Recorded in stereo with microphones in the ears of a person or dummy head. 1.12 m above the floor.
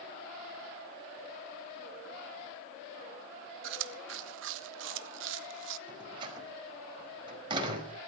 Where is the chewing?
65° right (ahead or behind), 1.0 m.